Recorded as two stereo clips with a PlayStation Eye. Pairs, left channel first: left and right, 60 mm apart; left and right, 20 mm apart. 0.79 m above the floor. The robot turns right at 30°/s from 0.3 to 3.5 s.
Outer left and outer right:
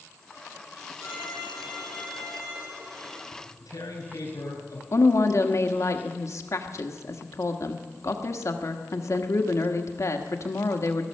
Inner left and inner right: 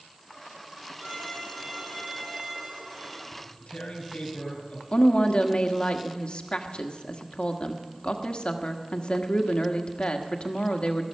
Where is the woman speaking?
55° left (ahead or behind), 1.2 m.